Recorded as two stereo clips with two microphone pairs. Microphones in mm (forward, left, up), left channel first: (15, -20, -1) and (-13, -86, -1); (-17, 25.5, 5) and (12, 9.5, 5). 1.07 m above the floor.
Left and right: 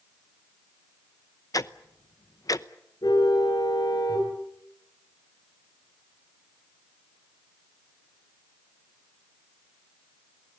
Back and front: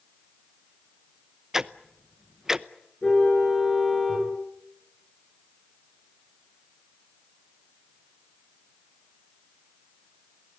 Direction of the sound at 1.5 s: 45° left.